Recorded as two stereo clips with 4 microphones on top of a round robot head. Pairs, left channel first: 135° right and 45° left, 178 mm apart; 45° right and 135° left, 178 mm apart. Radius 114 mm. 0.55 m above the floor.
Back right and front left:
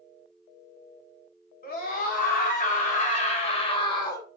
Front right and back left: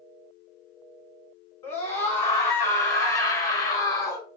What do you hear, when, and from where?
1.6 s a scream: 120° right, 2 m; by 4.3 s 90° right, 1.2 m